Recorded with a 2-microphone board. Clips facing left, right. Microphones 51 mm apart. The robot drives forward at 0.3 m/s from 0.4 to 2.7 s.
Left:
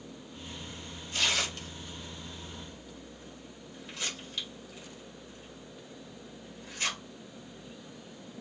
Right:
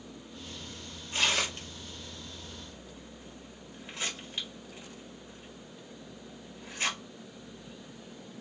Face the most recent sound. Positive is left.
turn(degrees=-25)  # may be behind; listen again after turning